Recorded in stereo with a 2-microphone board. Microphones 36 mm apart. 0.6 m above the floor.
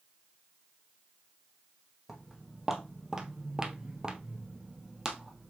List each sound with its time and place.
2.1 s footsteps: 10° right (ahead or behind), 1.4 m; by 5.5 s 15° right (ahead or behind), 1.2 m